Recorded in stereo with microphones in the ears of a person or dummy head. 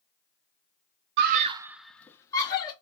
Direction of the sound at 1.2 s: 65° right (ahead or behind).